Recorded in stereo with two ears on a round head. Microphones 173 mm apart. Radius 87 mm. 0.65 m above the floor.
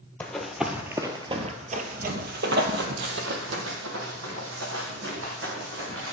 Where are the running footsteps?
5° left (ahead or behind), 1.0 m; by 6.1 s 70° right (ahead or behind), 3 m.